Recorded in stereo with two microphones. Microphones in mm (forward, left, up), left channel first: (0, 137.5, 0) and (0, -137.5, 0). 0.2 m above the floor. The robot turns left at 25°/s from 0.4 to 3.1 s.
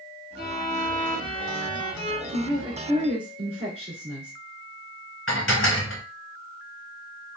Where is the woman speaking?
50° right (ahead or behind), 1.8 m; by 4.3 s 45° right (ahead or behind), 1.8 m.